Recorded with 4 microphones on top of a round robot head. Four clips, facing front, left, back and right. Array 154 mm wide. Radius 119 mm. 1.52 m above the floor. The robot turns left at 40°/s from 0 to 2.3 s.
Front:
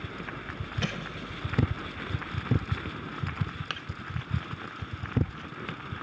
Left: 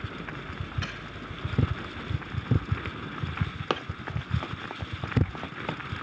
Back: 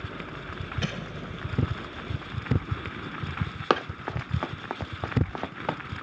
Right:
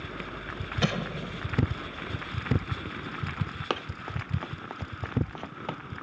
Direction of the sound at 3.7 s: Straight behind.